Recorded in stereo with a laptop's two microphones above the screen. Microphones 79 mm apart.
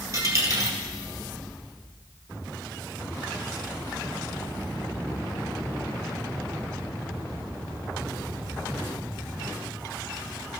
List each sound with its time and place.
0.1 s a dropped coin: 40° right (ahead or behind), 1.9 m